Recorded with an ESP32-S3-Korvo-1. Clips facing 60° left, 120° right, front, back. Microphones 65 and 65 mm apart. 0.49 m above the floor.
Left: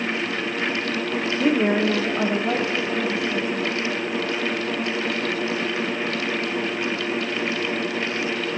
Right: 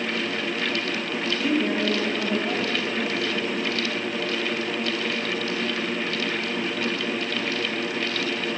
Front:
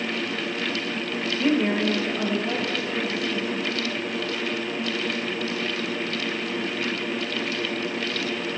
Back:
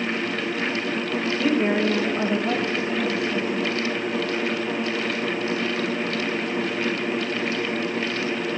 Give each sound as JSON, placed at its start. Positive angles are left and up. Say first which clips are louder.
{"t": 1.4, "sound": "a woman speaking", "louder": "left 5 dB, even", "azimuth_deg": 95, "distance_m": 1.4}